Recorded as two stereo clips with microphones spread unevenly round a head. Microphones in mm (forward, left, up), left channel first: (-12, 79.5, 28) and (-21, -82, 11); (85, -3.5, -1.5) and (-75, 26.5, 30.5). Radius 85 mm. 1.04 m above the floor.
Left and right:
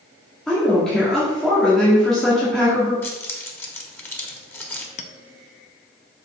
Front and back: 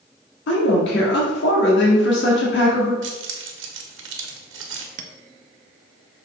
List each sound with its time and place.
0.5 s a woman speaking: straight ahead, 1.8 m
3.0 s keys jangling: 165° left, 1.2 m
5.0 s a clink: 135° left, 0.7 m